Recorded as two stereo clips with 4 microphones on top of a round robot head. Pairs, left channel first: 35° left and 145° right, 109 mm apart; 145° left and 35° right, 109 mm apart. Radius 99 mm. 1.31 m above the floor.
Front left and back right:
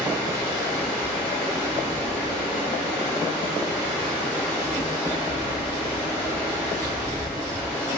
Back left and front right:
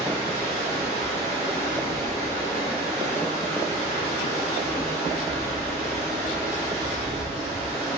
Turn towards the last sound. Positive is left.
turn(degrees=-45)